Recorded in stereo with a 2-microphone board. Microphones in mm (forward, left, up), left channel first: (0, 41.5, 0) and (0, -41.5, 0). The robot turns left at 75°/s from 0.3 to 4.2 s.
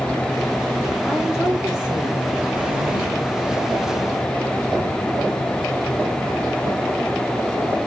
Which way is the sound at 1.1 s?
10° left.